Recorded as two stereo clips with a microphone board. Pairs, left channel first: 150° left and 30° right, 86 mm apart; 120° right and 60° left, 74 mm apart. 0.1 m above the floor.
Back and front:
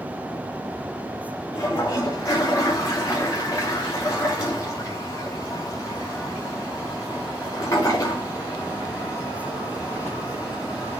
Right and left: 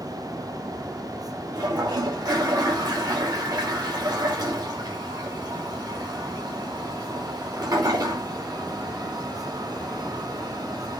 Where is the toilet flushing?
95° left, 4.5 m.